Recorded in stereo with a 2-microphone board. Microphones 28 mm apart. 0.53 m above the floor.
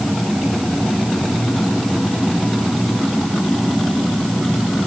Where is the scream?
No scream in this recording.